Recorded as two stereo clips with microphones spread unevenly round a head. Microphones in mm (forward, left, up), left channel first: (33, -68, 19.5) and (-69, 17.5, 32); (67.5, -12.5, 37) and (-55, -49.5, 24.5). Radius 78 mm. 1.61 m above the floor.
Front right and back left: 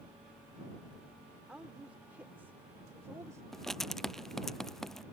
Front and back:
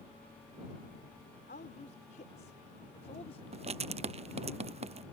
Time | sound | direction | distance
1.5 | a woman speaking | 55° left | ?
3.5 | writing | 125° right | ?